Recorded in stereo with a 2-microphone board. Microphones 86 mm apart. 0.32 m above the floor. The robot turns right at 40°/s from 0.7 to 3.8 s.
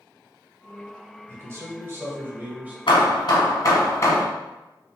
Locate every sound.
1.3 s a man speaking: 90° right, 1.4 m; by 2.8 s 30° right, 1.4 m
2.9 s hammering: 100° left, 1.1 m; by 4.2 s 140° left, 1.1 m